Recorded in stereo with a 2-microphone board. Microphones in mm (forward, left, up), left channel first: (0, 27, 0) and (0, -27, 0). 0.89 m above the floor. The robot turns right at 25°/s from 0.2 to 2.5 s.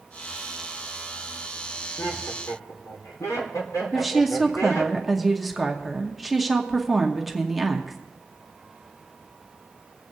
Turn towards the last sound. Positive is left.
turn(degrees=-5)  # may be behind; listen again after turning